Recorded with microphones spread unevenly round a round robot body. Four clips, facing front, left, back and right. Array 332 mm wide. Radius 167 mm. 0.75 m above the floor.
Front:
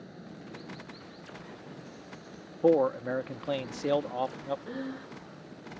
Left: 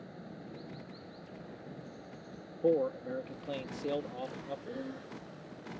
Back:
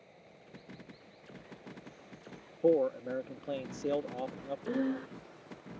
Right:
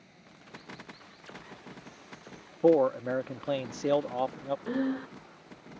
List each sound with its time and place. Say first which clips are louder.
0.0 s running water: left 9 dB, front 11 dB; 40° left
2.6 s a man speaking: right 7 dB, front 4 dB; 55° right
4.7 s breathing: right 11 dB, back 5 dB; 95° right